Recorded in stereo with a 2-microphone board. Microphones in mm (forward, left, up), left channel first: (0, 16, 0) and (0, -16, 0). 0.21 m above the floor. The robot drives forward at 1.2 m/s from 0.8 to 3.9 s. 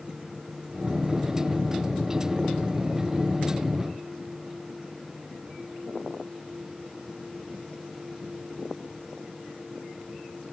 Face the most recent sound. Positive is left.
No sound to turn to.